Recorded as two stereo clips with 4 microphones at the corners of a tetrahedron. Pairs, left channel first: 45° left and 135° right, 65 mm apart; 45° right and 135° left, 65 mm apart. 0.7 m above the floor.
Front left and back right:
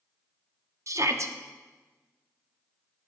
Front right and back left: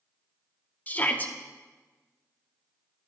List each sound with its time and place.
0.9 s a shout: 105° right, 1.0 m